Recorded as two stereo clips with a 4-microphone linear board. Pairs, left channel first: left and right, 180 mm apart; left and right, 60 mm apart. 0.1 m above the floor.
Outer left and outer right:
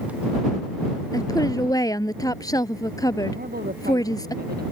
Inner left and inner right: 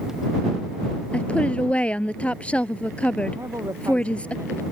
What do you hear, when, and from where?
1.1 s a woman speaking: 20° left (ahead or behind)
3.4 s a woman speaking: 60° right (ahead or behind)